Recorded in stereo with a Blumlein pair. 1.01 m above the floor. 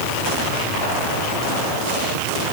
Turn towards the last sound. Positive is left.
No sound to turn to.